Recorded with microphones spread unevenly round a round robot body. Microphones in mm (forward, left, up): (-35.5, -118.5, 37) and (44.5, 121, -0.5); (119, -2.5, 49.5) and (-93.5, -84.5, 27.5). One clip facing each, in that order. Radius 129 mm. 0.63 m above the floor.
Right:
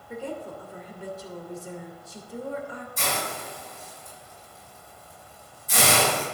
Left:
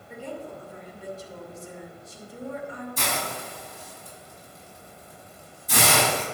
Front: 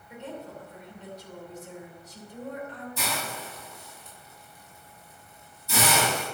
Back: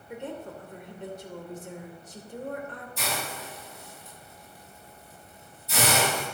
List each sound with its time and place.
0.1 s a woman speaking: 125° right, 2.5 m
3.0 s a hiss: 50° left, 5.5 m